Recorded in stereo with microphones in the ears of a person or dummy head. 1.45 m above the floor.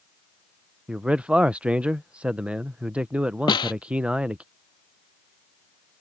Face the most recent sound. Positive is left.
turn(degrees=20)  # may be behind; listen again after turning